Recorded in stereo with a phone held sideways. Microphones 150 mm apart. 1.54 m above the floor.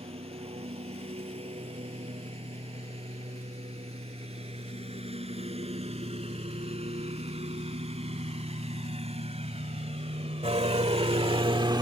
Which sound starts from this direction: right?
A lawn mower, at 0.0 s.